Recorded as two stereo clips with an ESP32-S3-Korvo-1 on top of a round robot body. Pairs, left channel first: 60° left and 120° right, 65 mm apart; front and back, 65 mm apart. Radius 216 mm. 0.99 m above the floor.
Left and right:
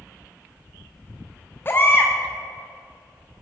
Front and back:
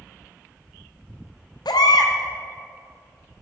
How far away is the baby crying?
About 0.7 m.